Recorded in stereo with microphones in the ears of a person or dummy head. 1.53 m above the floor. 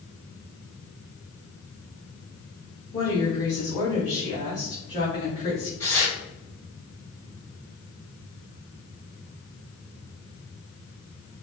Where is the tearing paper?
15° left (ahead or behind), 1.9 m.